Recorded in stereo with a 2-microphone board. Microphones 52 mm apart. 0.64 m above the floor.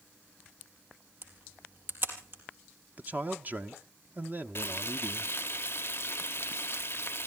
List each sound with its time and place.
1.2 s a camera shutter: 40° right (ahead or behind), 4 m
3.0 s a man speaking: 35° right (ahead or behind), 0.8 m
4.5 s frying: 50° left (ahead or behind), 0.6 m